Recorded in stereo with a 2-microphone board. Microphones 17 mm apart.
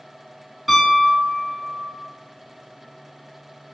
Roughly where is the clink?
I don't hear a clink.